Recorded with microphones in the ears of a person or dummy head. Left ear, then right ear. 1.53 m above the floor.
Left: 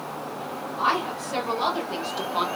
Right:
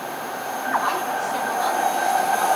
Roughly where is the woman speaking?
Left.